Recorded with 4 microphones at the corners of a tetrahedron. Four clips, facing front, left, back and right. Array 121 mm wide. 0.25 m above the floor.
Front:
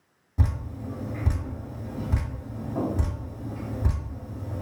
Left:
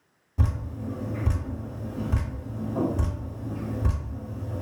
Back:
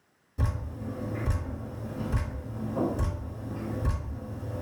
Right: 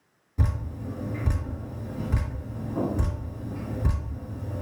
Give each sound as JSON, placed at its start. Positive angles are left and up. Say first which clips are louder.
{"t": 0.4, "sound": "dripping", "louder": "left 1 dB, front 3 dB", "azimuth_deg": 10, "distance_m": 1.7}